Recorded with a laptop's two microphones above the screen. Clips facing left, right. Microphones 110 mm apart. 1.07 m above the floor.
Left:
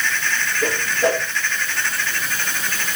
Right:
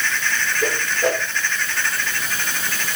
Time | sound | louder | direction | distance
0.6 | a whoosh | left 2 dB | 5° left (ahead or behind) | 7.5 m